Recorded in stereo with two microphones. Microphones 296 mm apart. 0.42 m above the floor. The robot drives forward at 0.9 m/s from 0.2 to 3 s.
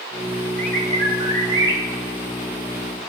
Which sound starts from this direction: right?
A bird, at 0.6 s.